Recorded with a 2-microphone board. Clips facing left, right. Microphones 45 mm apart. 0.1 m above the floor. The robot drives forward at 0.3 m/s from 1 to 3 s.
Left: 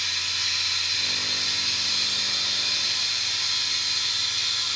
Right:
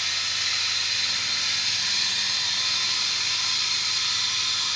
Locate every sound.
0.0 s running water: 75° right (ahead or behind), 1.4 m